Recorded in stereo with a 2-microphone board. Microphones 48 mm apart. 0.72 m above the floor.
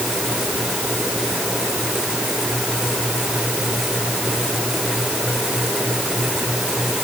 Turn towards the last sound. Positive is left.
No sound to turn to.